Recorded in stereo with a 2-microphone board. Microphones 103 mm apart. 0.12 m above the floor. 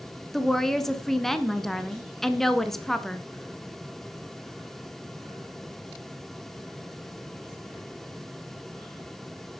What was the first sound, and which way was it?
A woman speaking, 5° left (ahead or behind).